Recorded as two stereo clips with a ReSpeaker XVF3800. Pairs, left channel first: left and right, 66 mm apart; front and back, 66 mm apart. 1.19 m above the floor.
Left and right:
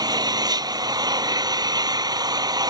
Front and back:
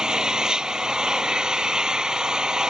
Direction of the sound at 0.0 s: 100° right.